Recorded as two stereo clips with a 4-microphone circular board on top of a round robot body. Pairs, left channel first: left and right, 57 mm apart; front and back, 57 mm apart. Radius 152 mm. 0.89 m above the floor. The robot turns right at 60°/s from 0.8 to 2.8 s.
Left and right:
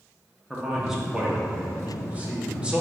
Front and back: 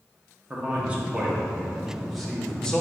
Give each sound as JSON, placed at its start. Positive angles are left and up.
{"t": 0.5, "sound": "a man speaking", "azimuth_deg": -165, "distance_m": 0.9}